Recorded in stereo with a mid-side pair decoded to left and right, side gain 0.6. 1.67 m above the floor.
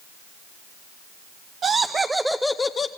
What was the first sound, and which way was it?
Laughter, 45° right.